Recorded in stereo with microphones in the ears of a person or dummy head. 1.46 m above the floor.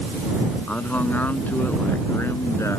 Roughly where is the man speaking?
Centre.